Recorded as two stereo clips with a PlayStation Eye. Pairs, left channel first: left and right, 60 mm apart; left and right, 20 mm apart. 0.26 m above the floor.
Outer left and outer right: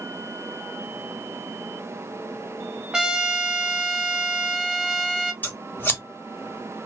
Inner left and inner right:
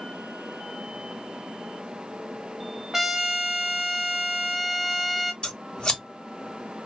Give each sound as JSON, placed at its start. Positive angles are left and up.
{"t": 2.9, "sound": "a trumpet", "side_deg": -10, "distance_m": 0.5}
{"t": 5.4, "sound": "scissors", "side_deg": 30, "distance_m": 1.4}